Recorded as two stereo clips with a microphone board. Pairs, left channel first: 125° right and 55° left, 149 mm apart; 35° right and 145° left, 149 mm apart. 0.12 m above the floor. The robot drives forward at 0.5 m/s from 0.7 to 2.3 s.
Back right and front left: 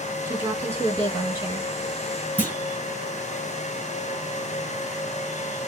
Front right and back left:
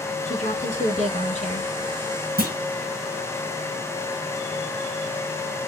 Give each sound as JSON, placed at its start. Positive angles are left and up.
{"t": 0.2, "sound": "a woman speaking", "azimuth_deg": -15, "distance_m": 2.5}
{"t": 2.4, "sound": "a clunk", "azimuth_deg": 155, "distance_m": 2.0}